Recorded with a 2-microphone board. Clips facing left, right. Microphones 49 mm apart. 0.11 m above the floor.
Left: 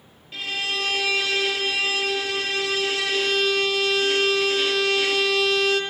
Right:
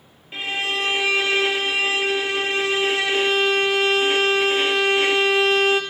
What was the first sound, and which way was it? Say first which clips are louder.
A violin: right 3 dB; 25° right (ahead or behind).